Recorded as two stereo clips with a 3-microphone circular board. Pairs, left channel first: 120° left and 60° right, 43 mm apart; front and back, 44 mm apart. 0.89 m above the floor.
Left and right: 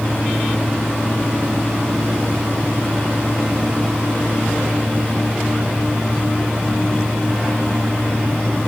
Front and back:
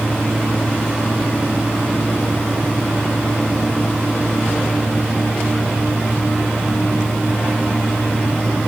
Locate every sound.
Only background noise.